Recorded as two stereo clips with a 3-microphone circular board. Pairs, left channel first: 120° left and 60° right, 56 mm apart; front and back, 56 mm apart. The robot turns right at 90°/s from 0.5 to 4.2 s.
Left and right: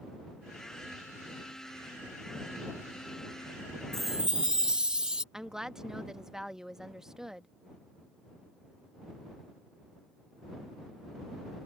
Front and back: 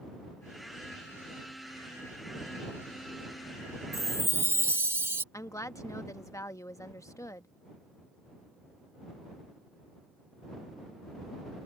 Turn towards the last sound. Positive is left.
turn(degrees=20)